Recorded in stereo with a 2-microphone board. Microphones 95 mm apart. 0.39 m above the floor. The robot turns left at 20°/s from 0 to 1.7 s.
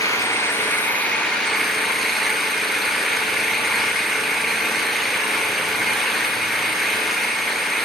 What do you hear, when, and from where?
0.0 s an engine running: 35° left, 7 m; by 7.8 s straight ahead, 7 m